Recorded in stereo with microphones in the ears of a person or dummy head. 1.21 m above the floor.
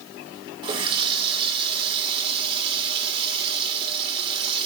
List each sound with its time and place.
0.6 s a running tap: 25° right (ahead or behind), 1.5 m